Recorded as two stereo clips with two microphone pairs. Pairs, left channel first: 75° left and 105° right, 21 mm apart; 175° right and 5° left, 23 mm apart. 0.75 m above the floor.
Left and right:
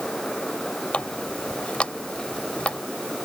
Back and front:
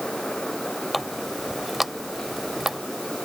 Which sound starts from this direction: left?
A running tap, at 0.9 s.